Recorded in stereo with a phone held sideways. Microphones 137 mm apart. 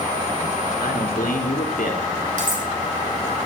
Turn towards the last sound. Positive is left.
turn(degrees=-70)  # may be behind; listen again after turning